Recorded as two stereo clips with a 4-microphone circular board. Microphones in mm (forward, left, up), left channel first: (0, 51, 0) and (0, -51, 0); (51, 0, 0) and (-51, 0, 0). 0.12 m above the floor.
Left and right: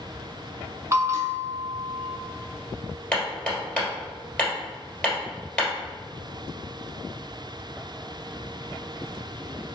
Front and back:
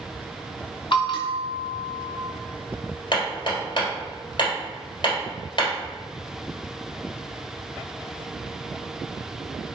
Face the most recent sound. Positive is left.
turn(degrees=15)